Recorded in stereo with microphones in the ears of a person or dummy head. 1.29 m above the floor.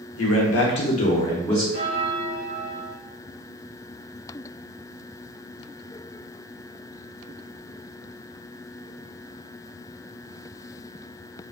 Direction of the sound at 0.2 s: 75° left (ahead or behind).